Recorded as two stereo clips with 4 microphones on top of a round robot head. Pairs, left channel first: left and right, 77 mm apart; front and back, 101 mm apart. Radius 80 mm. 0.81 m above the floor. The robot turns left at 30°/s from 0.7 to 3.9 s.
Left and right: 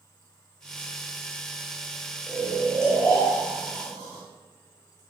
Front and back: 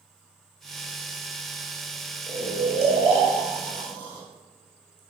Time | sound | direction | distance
2.3 | snoring | 170° right | 2.5 m